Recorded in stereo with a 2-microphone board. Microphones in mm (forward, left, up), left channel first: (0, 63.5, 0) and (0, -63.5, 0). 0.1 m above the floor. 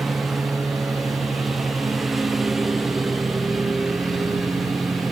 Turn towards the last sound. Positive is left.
turn(degrees=0)  # may be behind; listen again after turning